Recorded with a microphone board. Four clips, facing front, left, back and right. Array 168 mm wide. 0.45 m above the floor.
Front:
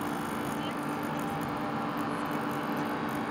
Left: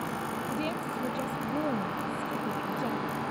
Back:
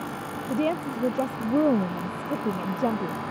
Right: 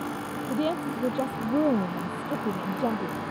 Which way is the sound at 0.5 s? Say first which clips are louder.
Right 9 dB, back 7 dB; 155° right.